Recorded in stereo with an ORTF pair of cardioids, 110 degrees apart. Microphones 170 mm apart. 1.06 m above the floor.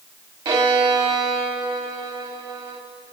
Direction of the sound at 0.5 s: 30° right.